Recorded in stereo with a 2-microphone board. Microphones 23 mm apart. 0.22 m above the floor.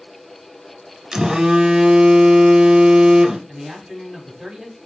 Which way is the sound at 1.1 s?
30° right (ahead or behind).